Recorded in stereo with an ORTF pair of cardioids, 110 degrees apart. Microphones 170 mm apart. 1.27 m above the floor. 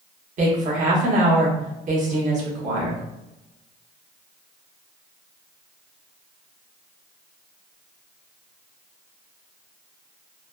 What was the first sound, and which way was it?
A woman speaking, 50° right.